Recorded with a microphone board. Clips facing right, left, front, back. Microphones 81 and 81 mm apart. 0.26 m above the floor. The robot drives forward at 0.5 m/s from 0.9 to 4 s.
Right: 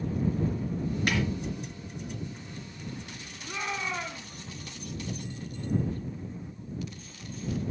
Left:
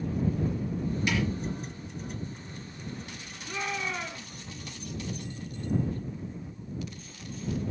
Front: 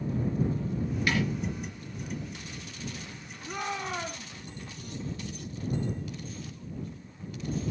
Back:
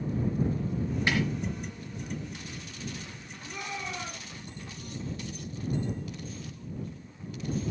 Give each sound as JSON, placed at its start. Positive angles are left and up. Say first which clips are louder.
{"t": 1.1, "sound": "a snare drum", "louder": "right 1 dB, even", "azimuth_deg": -120, "distance_m": 3.5}
{"t": 3.4, "sound": "a shout", "louder": "even, front 4 dB", "azimuth_deg": -25, "distance_m": 2.0}